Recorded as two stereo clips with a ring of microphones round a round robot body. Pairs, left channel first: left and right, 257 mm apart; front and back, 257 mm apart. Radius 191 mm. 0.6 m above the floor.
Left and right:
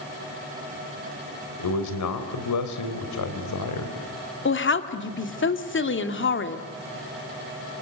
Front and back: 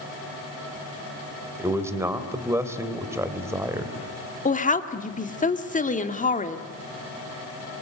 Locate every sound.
1.6 s a man speaking: 100° left, 3 m
4.5 s a woman speaking: 55° left, 2 m